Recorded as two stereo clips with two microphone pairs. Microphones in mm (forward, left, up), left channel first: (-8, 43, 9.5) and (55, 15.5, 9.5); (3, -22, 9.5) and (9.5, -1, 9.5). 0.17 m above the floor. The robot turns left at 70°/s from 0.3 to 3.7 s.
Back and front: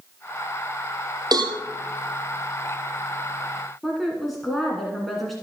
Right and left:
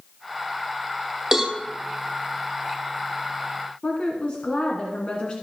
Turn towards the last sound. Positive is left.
turn(degrees=-115)